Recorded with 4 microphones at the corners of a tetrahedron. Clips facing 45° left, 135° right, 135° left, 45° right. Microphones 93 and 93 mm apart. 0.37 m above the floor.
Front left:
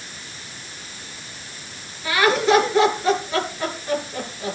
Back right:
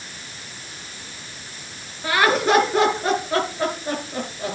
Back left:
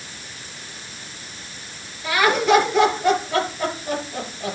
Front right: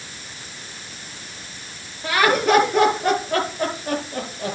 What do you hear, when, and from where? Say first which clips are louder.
2.0 s laughter: even, even; 85° right, 8 m